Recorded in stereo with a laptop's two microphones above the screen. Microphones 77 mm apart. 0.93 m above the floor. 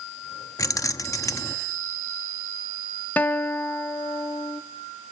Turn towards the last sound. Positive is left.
turn(degrees=20)  # may be behind; listen again after turning